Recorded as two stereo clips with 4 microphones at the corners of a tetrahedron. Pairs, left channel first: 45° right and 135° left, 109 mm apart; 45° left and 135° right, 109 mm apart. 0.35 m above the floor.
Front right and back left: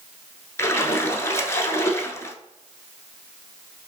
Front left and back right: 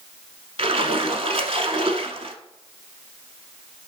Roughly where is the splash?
Right.